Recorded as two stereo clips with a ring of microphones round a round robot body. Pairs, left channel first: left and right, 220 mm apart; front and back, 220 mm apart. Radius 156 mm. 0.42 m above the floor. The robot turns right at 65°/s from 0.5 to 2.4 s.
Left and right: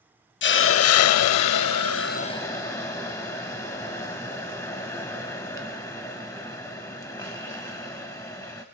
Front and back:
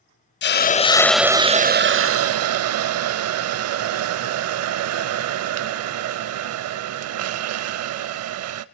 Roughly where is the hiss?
Ahead left.